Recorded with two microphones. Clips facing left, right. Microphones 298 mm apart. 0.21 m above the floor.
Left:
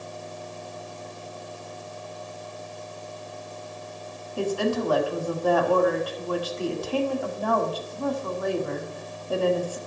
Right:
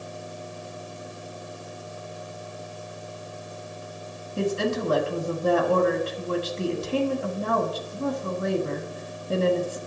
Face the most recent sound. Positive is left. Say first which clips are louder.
# even
turn(degrees=-25)  # may be behind; listen again after turning